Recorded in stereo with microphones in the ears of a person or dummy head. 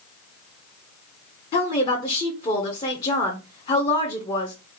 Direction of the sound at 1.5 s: 30° left (ahead or behind).